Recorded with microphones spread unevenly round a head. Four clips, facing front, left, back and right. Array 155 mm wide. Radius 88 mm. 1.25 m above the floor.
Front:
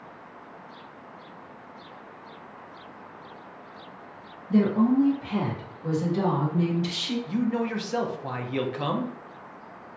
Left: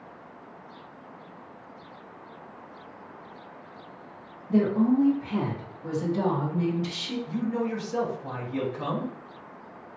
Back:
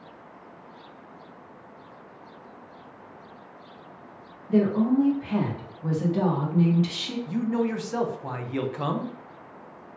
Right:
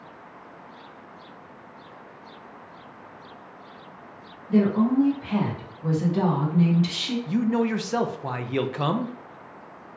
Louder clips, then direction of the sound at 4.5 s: Right 2 dB, even; 170° right.